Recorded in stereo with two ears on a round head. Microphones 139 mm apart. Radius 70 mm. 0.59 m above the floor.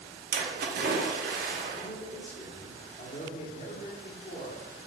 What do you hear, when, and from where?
0.3 s a splash: 60° right (ahead or behind), 1.4 m
1.7 s a man speaking: 40° left (ahead or behind), 1.7 m